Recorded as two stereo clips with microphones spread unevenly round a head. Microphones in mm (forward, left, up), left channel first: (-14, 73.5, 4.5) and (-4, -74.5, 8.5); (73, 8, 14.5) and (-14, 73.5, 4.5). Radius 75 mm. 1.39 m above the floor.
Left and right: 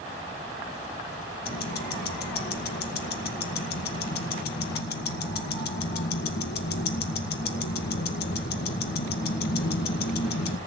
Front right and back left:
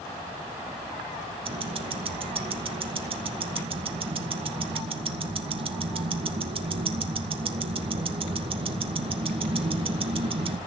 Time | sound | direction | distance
1.4 | ticking | 110° left | 1.8 m